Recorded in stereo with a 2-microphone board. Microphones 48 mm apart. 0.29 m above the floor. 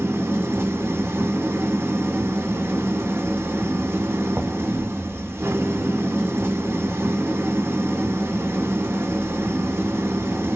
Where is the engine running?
60° right (ahead or behind), 1.0 m.